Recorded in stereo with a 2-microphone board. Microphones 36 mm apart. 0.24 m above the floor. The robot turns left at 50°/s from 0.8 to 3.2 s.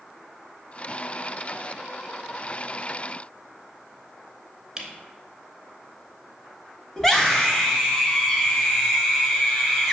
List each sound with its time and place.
4.8 s a camera shutter: 20° right (ahead or behind), 0.9 m
7.0 s a scream: 10° left (ahead or behind), 1.0 m